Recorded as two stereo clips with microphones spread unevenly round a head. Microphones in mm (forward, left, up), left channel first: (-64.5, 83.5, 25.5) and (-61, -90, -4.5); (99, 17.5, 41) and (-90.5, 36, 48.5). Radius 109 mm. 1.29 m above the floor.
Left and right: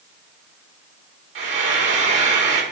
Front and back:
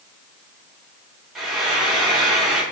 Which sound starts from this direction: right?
Frying, at 1.4 s.